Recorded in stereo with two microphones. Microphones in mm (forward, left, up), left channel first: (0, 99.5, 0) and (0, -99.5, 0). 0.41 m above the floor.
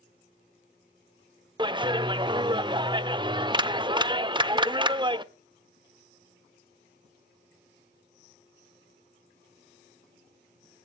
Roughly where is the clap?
Right.